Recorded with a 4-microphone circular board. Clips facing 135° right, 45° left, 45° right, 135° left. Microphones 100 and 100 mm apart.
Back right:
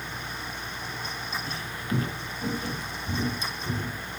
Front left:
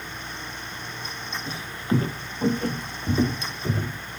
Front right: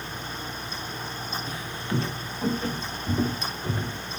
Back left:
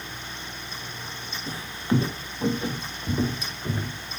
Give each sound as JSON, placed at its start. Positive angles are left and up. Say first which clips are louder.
{"t": 1.5, "sound": "footsteps", "louder": "front left 8 dB, back left 8 dB", "azimuth_deg": 100, "distance_m": 1.4}